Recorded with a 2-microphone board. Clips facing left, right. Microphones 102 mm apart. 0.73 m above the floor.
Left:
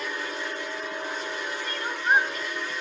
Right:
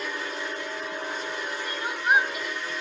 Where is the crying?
10° right (ahead or behind), 2.5 m.